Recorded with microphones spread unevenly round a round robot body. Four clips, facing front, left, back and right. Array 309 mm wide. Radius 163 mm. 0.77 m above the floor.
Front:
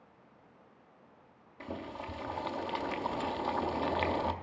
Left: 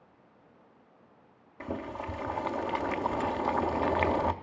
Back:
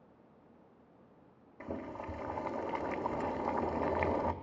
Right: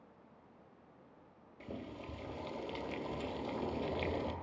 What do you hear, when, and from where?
1.6 s boiling: 65° left, 0.5 m